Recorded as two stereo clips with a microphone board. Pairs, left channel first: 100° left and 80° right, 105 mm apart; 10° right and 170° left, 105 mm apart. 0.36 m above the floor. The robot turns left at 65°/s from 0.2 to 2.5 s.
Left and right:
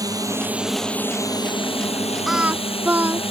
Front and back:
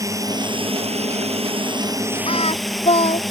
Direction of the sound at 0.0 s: 130° right.